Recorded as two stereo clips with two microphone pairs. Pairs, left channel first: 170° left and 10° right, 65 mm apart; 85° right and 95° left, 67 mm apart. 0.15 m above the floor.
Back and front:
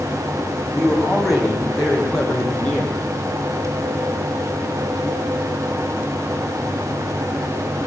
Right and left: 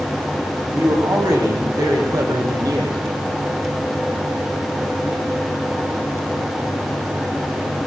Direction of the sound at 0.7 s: 75° left.